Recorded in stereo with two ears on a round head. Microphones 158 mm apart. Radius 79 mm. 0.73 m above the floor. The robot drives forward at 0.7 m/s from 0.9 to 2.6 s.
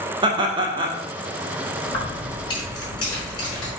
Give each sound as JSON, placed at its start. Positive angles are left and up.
{"t": 0.2, "sound": "laughter", "side_deg": -25, "distance_m": 1.0}
{"t": 1.9, "sound": "keys jangling", "side_deg": 30, "distance_m": 3.5}